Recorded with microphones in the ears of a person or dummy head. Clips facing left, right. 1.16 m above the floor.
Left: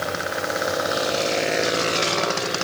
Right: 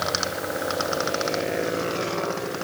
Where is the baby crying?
I don't hear a baby crying.